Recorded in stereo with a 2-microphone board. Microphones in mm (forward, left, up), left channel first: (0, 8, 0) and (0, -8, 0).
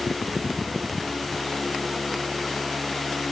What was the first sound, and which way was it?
Only background noise.